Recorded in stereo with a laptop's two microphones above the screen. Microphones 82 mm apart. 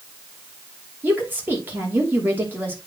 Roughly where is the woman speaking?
Right.